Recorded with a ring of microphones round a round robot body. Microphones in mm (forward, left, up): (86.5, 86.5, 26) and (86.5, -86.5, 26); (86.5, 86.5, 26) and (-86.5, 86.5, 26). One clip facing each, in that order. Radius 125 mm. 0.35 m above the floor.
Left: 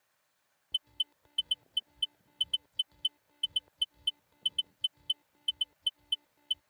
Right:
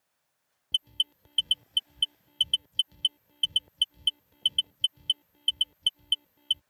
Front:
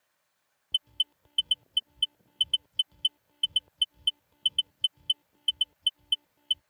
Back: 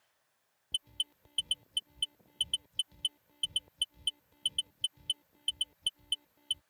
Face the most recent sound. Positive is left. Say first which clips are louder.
# right 6 dB, front 5 dB
turn(degrees=-110)